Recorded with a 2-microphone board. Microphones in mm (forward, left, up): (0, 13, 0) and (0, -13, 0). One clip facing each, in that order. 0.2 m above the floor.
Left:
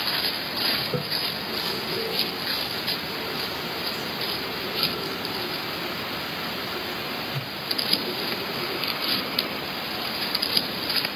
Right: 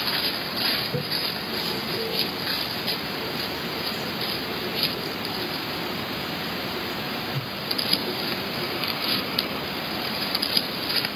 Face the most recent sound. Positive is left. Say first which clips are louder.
# even
turn(degrees=60)  # may be behind; listen again after turning